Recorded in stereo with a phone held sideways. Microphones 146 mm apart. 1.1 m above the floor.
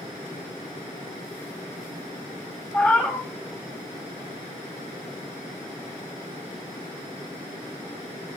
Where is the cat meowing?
15° left (ahead or behind), 3 m.